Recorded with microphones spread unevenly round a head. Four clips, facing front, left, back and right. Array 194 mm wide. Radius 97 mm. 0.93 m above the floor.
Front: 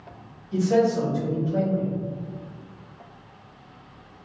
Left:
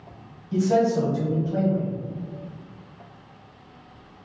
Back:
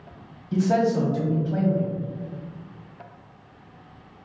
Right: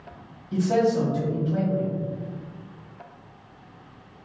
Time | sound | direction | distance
0.5 | a man speaking | 175° right | 1.1 m